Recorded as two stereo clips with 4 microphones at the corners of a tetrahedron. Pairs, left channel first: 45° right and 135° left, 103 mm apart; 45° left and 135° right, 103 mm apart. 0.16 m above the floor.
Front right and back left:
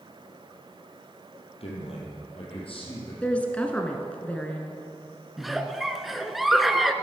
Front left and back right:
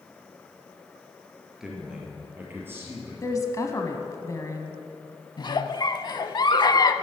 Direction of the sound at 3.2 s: 20° left.